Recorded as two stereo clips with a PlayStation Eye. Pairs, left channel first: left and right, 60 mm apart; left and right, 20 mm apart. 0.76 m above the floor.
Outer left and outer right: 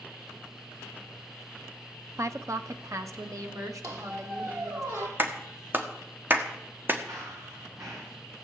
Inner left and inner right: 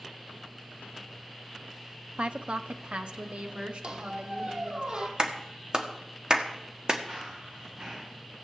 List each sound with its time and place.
2.2 s a woman speaking: 60° right (ahead or behind), 0.7 m; by 4.8 s 65° right (ahead or behind), 2 m
3.8 s a squeak: 65° right (ahead or behind), 2.5 m
5.2 s a clap: 35° right (ahead or behind), 1.4 m
7.1 s running footsteps: 65° right (ahead or behind), 4.5 m